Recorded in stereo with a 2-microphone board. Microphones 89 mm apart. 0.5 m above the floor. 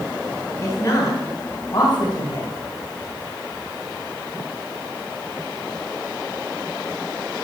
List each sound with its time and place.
0.6 s a woman speaking: 35° left (ahead or behind), 3.5 m; by 2.5 s 65° left (ahead or behind), 2.5 m